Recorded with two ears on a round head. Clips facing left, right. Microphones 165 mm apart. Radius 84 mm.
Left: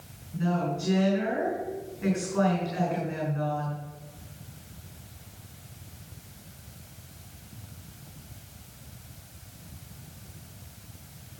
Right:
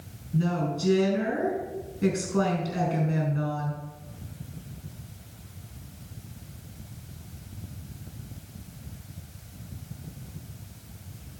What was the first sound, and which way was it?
A woman speaking, 50° right (ahead or behind).